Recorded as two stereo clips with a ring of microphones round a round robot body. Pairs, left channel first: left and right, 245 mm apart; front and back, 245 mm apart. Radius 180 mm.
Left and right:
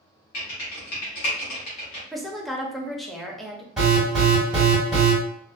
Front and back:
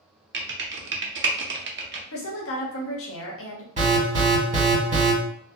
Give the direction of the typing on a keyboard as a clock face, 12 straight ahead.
8 o'clock.